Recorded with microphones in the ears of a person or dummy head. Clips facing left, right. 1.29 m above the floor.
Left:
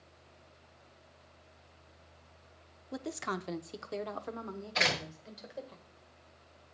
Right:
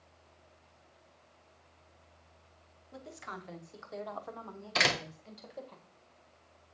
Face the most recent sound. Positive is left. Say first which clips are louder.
# right 2 dB
turn(degrees=-75)  # may be behind; listen again after turning